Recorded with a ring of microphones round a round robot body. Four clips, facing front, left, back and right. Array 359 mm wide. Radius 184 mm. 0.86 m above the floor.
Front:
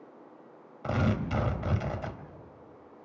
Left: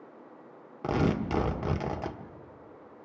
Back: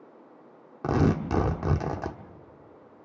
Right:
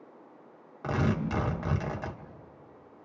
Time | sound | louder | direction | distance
0.8 | tearing paper | left 2 dB, back 5 dB | 165° left | 1.6 m